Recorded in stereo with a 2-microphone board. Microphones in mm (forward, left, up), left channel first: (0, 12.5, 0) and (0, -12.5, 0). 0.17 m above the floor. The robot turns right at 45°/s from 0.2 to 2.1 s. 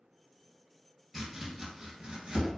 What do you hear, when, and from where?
1.1 s chopping: centre (ahead or behind), 1.1 m; by 2.5 s 40° right (ahead or behind), 1.1 m